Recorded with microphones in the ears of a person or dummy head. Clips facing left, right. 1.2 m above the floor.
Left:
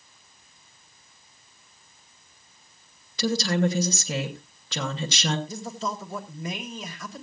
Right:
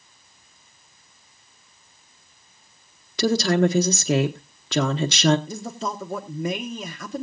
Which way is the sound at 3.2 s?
55° right (ahead or behind).